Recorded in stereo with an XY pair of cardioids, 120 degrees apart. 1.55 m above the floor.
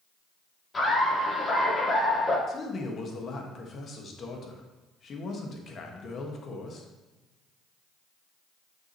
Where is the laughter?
25° left, 3.5 m.